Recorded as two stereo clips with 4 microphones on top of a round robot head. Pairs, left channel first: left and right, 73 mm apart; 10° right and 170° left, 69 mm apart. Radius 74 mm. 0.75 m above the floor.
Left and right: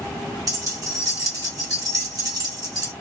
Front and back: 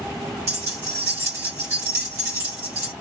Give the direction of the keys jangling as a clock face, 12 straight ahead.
4 o'clock.